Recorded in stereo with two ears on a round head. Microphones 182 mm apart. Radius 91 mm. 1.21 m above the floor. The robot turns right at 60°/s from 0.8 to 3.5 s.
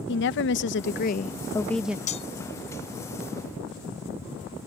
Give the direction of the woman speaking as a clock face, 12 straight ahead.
8 o'clock.